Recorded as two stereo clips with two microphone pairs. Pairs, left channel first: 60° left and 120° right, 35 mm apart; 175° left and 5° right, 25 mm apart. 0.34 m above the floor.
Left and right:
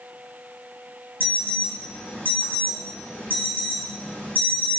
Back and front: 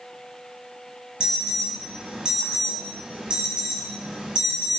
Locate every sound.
1.2 s an alarm: 45° left, 3 m